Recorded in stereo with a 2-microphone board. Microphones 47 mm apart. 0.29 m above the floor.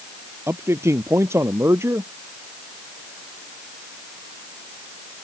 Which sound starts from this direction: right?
A man speaking, at 0.5 s.